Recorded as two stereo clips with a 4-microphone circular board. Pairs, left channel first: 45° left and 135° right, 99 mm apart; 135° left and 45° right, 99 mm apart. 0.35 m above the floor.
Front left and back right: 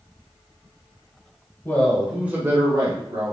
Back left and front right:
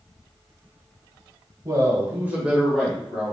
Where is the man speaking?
15° right, 1.3 m; by 3.3 s 150° right, 1.8 m.